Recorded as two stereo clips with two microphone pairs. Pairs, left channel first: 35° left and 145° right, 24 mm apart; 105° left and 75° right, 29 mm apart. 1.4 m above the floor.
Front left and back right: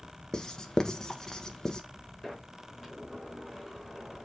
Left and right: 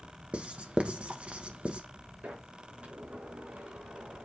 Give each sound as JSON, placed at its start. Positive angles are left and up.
{"t": 0.3, "sound": "writing", "azimuth_deg": -30, "distance_m": 1.1}
{"t": 2.2, "sound": "a sliding door", "azimuth_deg": -60, "distance_m": 4.5}